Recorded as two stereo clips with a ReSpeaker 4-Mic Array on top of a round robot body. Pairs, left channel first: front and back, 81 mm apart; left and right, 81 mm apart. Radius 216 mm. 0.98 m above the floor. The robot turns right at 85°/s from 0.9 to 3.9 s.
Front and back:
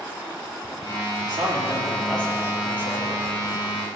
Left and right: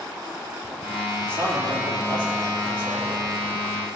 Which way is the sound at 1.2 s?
160° right.